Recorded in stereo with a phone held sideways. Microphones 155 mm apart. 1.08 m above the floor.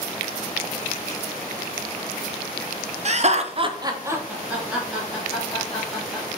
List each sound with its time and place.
3.0 s laughter: 45° right (ahead or behind), 0.6 m; by 6.2 s 5° left (ahead or behind), 2.5 m